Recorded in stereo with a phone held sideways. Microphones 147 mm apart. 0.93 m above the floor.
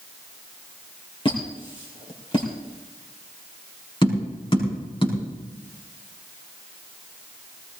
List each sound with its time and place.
1.2 s a squeak: 35° left (ahead or behind), 4 m
4.0 s tapping: 35° left (ahead or behind), 6 m